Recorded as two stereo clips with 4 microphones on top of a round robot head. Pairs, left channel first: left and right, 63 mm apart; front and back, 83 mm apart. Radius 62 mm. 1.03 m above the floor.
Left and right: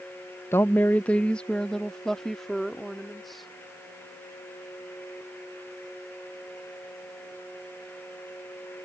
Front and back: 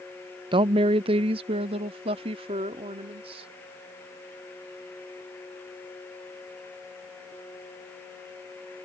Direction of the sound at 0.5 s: 155° left.